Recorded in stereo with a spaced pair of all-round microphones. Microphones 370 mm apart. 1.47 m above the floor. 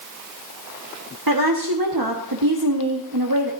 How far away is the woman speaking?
About 1.6 m.